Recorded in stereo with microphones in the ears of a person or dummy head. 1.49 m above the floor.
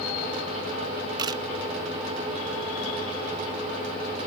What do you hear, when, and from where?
1.2 s a camera shutter: 25° right (ahead or behind)